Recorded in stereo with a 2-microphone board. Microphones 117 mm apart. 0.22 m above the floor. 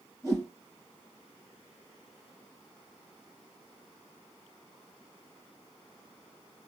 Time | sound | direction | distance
0.2 | a whoosh | 30° right (ahead or behind) | 3 m